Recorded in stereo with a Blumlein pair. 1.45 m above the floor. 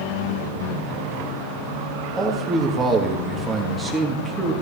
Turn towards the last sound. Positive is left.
turn(degrees=-10)